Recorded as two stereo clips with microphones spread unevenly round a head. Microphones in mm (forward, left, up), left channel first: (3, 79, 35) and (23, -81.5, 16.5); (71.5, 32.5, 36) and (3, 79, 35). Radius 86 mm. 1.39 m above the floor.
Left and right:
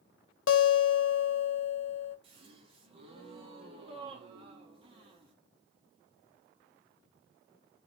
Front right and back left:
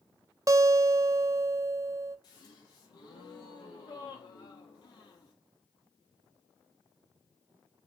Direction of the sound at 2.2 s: 30° right.